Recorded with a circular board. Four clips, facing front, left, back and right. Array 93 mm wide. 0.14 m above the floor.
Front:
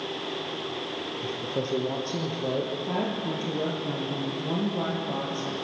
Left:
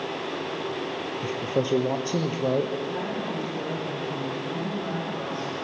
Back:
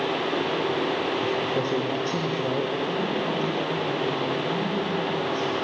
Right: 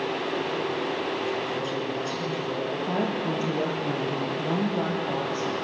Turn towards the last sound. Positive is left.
turn(degrees=-65)